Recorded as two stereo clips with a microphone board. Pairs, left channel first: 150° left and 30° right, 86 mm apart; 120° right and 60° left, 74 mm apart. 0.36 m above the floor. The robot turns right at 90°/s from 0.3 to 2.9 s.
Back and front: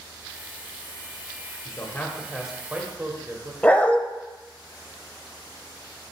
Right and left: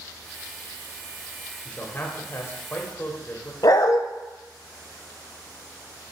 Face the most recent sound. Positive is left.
turn(degrees=-140)